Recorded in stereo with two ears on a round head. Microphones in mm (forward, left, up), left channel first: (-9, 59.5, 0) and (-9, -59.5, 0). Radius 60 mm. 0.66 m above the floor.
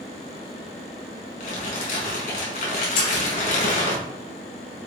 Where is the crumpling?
70° left (ahead or behind), 5 m.